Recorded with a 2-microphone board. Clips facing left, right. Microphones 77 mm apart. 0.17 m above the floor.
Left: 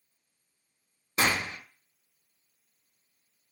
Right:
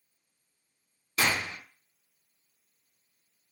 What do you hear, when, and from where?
1.2 s a gunshot: 30° left (ahead or behind), 1.2 m